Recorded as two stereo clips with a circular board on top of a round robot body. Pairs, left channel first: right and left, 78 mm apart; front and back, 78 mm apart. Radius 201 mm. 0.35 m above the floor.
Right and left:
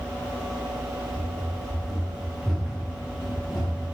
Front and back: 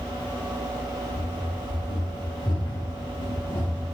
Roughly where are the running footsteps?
Ahead.